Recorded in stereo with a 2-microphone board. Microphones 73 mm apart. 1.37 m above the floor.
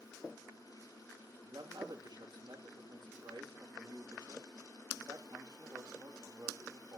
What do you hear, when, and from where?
1.4 s a man speaking: 75° right (ahead or behind), 1.9 m